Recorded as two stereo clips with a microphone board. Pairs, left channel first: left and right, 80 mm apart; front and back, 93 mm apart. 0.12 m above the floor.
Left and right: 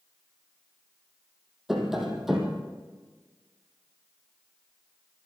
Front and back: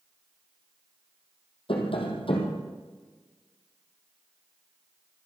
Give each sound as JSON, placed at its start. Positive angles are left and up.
{"t": 1.7, "sound": "tapping", "azimuth_deg": -5, "distance_m": 3.5}